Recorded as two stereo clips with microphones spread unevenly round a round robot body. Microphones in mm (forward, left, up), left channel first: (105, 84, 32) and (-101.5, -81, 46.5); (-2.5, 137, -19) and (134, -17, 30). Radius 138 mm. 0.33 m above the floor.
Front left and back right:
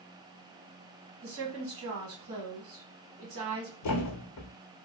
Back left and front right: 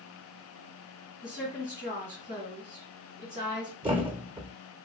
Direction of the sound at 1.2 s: 110° right.